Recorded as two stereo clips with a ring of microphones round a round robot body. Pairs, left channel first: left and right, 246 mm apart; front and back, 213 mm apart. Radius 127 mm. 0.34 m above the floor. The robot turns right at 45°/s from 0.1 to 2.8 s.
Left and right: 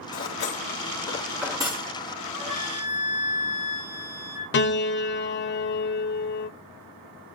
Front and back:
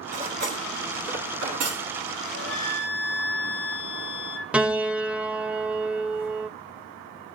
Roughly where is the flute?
Ahead right.